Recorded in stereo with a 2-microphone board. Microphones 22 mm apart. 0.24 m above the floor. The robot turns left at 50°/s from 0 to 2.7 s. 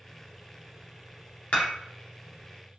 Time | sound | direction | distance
1.5 | dishes clattering | 70° left (ahead or behind) | 2.5 m